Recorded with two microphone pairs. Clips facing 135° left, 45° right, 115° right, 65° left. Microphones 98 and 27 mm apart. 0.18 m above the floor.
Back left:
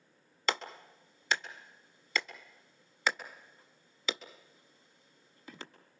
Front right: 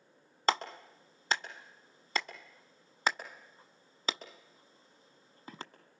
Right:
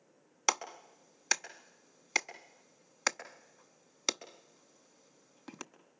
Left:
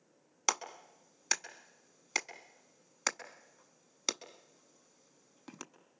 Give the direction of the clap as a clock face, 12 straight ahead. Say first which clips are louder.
Front right 4 dB, right 2 dB; 1 o'clock.